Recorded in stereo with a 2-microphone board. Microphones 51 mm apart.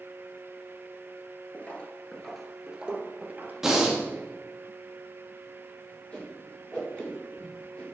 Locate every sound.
1.5 s footsteps: 30° left (ahead or behind), 1.3 m; by 3.5 s 40° right (ahead or behind), 1.4 m
3.6 s breathing: 10° right (ahead or behind), 1.4 m
6.1 s a whoosh: 25° left (ahead or behind), 3.5 m